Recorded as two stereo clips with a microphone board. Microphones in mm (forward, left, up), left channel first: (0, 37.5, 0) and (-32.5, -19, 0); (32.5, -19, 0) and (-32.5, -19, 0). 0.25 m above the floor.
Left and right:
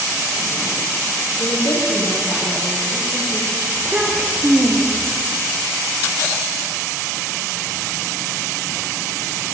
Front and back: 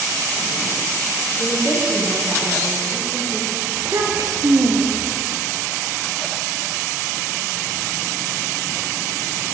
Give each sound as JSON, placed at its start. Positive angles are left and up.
{"t": 1.4, "sound": "a woman speaking", "azimuth_deg": 75, "distance_m": 6.0}
{"t": 3.8, "sound": "a child speaking", "azimuth_deg": 175, "distance_m": 3.0}